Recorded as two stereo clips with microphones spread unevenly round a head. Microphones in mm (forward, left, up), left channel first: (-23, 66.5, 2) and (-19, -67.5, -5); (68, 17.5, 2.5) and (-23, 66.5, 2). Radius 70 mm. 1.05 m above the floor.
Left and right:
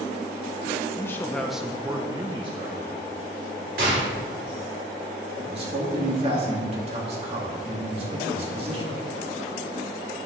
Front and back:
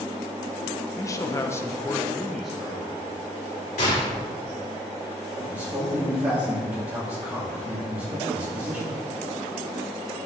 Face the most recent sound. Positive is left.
turn(degrees=-130)